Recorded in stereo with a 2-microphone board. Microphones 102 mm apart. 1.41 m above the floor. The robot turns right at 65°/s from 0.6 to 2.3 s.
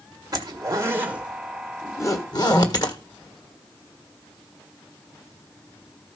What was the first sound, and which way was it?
A zipper, 40° right (ahead or behind).